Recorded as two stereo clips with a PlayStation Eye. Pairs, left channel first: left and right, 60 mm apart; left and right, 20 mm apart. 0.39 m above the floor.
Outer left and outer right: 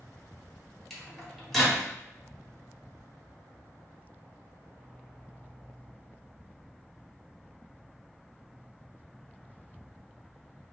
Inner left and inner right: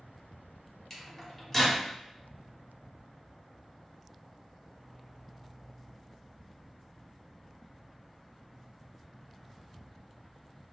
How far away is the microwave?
About 1.0 m.